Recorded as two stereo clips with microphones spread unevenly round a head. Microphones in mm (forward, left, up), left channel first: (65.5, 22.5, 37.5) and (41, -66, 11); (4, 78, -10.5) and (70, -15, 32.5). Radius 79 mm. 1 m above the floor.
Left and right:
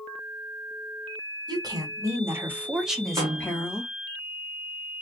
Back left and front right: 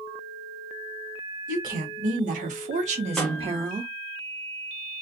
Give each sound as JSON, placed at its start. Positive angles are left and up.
{"t": 1.5, "sound": "a woman speaking", "azimuth_deg": -90, "distance_m": 1.3}
{"t": 3.2, "sound": "a snare drum", "azimuth_deg": -95, "distance_m": 0.7}